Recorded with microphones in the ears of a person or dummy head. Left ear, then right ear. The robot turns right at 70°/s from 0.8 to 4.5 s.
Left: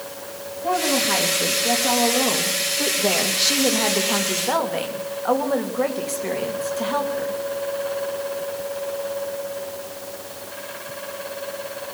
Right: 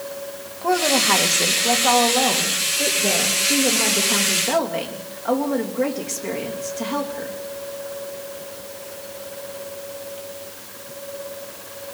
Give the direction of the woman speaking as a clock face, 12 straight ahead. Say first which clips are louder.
Right 3 dB; 4 o'clock.